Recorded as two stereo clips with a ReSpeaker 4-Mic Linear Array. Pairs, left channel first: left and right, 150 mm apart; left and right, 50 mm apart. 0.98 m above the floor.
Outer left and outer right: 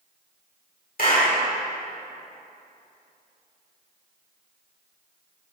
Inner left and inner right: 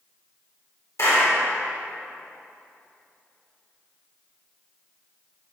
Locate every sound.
1.0 s a clap: 65° left (ahead or behind), 3 m